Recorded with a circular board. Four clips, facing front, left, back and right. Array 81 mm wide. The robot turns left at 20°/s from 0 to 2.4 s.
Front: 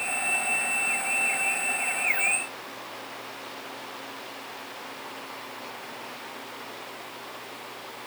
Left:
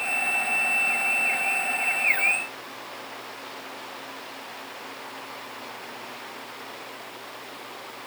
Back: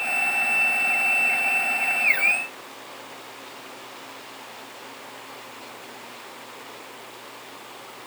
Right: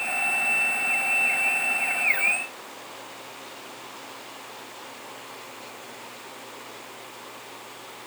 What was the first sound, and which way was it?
Only background noise.